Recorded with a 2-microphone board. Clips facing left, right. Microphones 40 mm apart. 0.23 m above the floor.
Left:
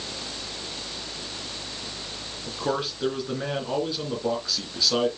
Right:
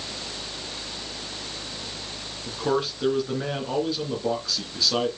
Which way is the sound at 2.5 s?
5° left (ahead or behind).